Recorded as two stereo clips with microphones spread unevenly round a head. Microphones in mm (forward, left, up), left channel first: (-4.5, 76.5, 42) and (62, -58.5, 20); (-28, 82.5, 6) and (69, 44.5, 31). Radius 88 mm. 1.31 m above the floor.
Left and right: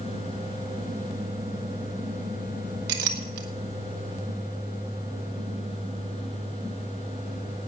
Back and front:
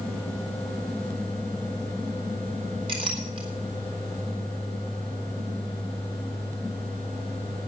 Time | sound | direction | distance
2.9 | a clink | 80° right | 1.6 m